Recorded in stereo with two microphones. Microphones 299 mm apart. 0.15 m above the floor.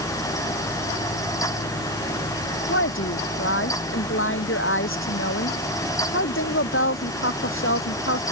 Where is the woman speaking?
45° left (ahead or behind).